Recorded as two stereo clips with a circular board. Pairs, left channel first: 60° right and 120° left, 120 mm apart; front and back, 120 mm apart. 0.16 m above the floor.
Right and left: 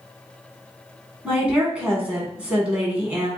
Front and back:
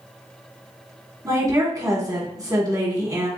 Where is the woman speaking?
175° right, 1.6 m.